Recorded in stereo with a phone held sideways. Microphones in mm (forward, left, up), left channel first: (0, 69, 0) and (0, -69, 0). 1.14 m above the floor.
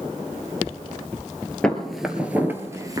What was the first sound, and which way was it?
Footsteps, 5° left (ahead or behind).